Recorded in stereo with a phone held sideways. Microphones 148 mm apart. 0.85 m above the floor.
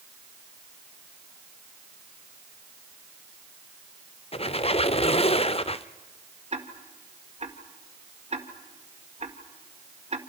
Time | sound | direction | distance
4.3 | a squeak | 40° left (ahead or behind) | 0.7 m
6.5 | ticking | 45° right (ahead or behind) | 1.9 m